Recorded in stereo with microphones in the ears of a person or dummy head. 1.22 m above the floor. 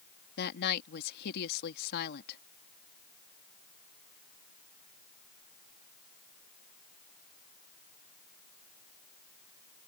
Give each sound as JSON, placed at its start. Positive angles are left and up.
{"t": 0.4, "sound": "a woman speaking", "side_deg": 55}